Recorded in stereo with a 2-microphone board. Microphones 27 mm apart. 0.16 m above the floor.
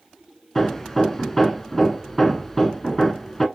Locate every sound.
0.6 s hammering: 10° left (ahead or behind), 0.6 m